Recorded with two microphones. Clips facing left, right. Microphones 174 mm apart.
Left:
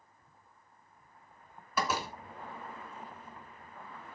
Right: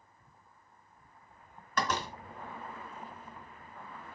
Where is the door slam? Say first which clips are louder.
Even; 10° left (ahead or behind), 1.6 m.